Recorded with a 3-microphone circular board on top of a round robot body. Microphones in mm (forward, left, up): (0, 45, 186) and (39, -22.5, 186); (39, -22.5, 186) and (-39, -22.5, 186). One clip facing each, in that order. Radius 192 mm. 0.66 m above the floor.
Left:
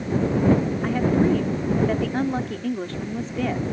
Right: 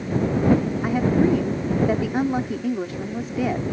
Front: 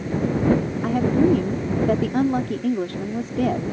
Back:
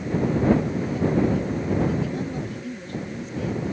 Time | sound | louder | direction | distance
0.8 | a woman speaking | right 1 dB, front 7 dB | 20° left | ?